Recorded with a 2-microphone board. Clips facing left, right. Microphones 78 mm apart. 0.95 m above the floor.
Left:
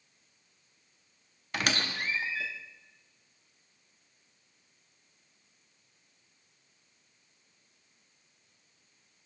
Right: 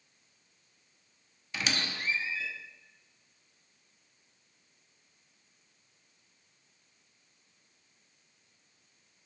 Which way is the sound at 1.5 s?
55° left (ahead or behind).